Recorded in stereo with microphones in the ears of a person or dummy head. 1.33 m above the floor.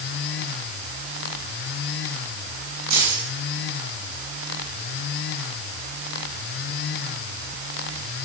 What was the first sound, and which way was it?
Keys jangling, 55° right (ahead or behind).